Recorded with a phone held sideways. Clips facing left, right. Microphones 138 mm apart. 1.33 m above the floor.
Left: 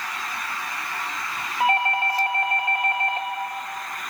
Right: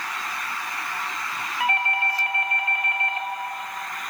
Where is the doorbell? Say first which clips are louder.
Left 4 dB; 35° left (ahead or behind), 2.5 m.